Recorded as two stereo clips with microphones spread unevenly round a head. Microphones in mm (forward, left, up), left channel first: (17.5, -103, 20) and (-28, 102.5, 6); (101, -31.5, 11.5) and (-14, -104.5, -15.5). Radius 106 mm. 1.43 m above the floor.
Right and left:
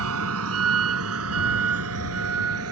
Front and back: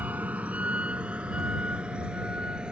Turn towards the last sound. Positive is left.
turn(degrees=125)